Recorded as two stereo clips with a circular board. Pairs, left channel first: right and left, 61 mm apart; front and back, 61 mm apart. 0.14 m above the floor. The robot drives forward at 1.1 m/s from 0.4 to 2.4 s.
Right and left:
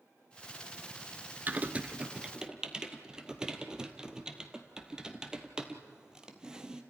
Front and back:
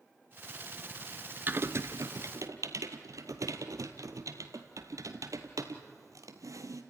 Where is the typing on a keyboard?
135° left, 0.6 m; by 6.8 s 165° left, 1.5 m.